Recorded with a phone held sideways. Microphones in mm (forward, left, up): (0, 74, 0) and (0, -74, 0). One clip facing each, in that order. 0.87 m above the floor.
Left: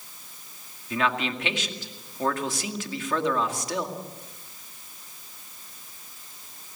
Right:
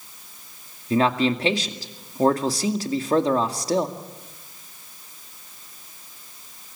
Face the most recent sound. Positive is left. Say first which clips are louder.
# right 7 dB
turn(degrees=-35)  # may be behind; listen again after turning